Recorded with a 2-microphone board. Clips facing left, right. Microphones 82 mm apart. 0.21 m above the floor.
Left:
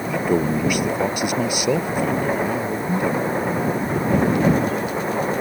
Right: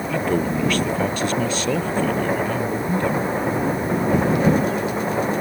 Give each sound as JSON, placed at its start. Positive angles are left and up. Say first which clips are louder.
{"t": 0.1, "sound": "a man speaking", "louder": "left 2 dB", "side_deg": 15}